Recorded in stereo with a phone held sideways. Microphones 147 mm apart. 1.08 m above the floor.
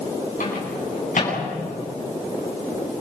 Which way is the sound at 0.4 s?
60° left (ahead or behind).